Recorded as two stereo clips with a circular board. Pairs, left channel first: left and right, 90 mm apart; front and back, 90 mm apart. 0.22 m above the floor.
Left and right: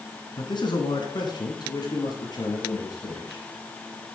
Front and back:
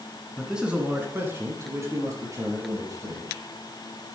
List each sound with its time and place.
0.4 s a man speaking: 95° left, 1.9 m; by 3.4 s 135° left, 5.5 m